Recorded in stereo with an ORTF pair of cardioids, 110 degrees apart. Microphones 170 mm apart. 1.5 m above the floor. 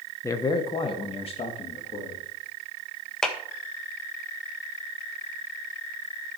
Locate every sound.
0.2 s a man speaking: 15° left, 1.0 m; by 2.2 s 40° left, 2.5 m
3.2 s a clap: 5° left, 1.6 m